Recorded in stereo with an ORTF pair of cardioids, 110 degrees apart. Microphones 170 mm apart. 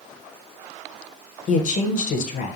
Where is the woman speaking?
50° left, 0.7 m.